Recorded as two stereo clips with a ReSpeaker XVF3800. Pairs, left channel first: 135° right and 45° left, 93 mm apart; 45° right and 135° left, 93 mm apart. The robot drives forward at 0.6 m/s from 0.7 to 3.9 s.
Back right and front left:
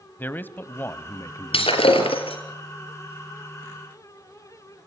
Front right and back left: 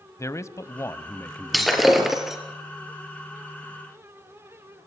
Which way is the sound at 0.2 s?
80° right.